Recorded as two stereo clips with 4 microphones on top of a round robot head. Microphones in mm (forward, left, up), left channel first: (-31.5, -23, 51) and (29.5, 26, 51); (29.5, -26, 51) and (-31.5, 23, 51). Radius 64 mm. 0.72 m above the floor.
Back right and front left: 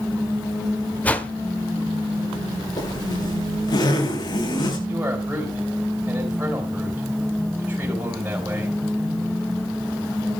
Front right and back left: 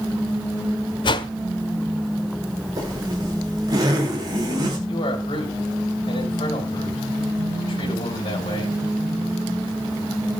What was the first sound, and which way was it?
A whoosh, 65° right.